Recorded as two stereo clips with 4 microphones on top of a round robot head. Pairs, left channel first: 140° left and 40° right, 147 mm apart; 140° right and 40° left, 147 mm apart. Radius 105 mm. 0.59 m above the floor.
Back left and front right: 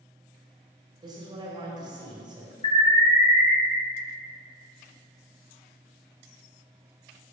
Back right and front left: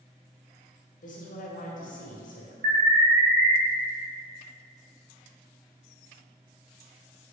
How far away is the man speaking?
About 2.5 m.